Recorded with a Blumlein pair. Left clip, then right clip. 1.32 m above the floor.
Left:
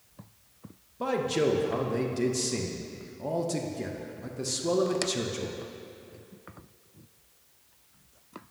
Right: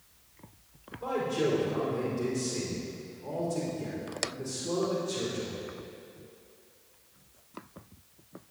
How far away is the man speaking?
About 0.8 m.